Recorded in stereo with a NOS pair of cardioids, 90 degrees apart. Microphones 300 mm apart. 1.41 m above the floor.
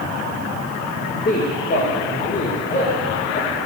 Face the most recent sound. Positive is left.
turn(degrees=30)